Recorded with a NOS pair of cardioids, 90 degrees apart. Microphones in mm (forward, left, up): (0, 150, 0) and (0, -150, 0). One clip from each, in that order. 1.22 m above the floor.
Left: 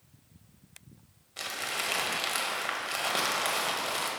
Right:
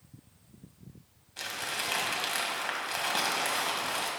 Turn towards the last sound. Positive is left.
turn(degrees=10)